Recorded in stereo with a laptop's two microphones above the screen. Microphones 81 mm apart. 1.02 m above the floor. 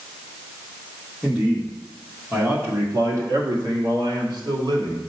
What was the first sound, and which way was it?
A man speaking, 5° right (ahead or behind).